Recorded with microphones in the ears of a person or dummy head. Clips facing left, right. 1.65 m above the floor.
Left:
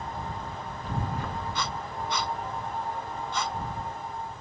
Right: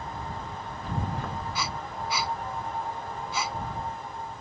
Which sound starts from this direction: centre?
Breathing, at 1.6 s.